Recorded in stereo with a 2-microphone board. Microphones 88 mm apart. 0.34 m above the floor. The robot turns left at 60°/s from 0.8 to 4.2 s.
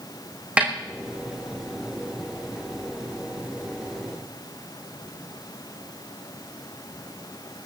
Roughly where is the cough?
No cough in this recording.